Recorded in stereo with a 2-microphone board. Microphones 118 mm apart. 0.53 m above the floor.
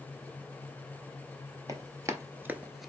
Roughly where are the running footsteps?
Right.